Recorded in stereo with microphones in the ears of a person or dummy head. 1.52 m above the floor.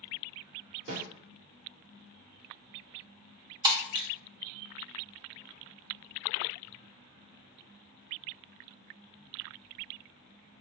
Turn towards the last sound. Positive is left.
turn(degrees=-25)  # may be behind; listen again after turning